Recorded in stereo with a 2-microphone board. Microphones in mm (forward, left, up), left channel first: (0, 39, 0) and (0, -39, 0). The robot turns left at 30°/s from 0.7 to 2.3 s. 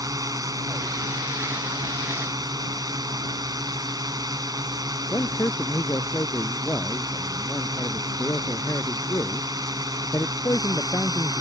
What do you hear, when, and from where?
0.0 s a drone: 65° right; by 11.4 s 110° right
5.1 s a man speaking: 40° left (ahead or behind)